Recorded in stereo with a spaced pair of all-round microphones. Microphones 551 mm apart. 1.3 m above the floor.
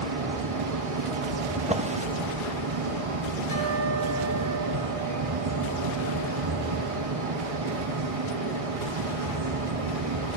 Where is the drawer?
15° right (ahead or behind), 0.7 m.